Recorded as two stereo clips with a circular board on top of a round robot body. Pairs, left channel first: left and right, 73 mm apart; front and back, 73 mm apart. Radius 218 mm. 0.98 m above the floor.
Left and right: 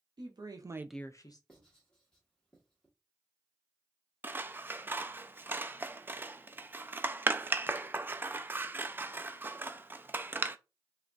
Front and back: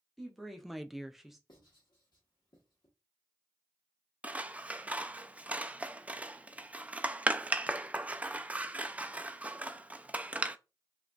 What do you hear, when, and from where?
0.2 s a woman speaking: 90° right, 1.1 m; by 1.4 s 95° left, 0.8 m
1.5 s writing: 10° left, 0.8 m
4.2 s scissors: 125° right, 0.5 m